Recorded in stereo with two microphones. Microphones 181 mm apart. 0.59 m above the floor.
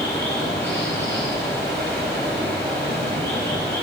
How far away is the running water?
About 9.5 m.